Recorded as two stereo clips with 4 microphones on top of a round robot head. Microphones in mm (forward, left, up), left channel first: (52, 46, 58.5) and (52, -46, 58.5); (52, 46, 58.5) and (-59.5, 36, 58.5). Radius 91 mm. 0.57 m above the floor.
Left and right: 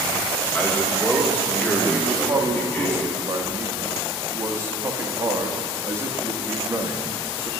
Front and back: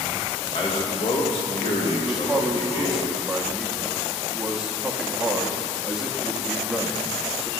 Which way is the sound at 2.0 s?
95° right.